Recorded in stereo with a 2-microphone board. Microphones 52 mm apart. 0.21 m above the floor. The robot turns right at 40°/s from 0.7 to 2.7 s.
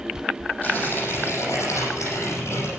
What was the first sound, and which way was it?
Tearing paper, 35° left.